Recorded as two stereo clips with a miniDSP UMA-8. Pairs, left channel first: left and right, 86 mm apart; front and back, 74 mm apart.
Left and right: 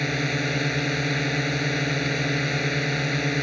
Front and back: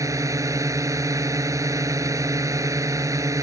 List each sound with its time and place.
0.0 s a drone: straight behind